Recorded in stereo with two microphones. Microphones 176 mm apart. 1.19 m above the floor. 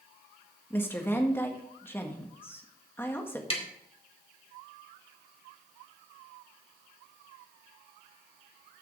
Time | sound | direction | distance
0.7 | a woman speaking | 15° left (ahead or behind) | 1.7 m
3.5 | tapping | 35° left (ahead or behind) | 1.9 m